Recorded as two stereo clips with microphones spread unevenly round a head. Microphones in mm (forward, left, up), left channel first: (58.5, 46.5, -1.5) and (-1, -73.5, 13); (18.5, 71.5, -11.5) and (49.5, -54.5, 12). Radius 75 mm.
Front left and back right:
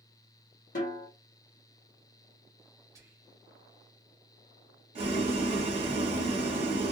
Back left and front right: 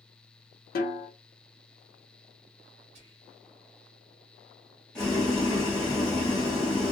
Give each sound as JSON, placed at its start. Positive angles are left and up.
{"t": 0.8, "sound": "a snare drum", "azimuth_deg": 95, "distance_m": 1.0}
{"t": 3.0, "sound": "whispering", "azimuth_deg": -55, "distance_m": 1.2}
{"t": 5.0, "sound": "boiling", "azimuth_deg": -165, "distance_m": 1.1}